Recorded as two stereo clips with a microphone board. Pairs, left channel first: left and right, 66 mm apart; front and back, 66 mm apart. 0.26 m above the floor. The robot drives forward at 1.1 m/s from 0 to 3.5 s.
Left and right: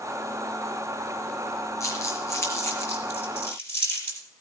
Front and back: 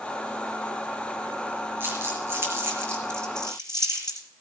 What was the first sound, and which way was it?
Crumpling, 125° left.